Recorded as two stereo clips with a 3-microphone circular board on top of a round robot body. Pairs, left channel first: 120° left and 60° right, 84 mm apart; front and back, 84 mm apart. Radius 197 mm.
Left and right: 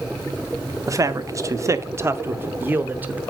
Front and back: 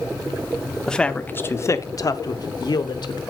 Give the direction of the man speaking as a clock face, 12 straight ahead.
3 o'clock.